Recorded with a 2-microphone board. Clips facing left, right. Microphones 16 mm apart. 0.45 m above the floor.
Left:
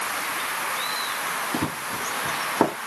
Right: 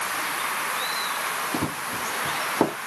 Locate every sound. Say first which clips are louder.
1.5 s running footsteps: even; 10° left (ahead or behind); by 2.8 s 15° left (ahead or behind)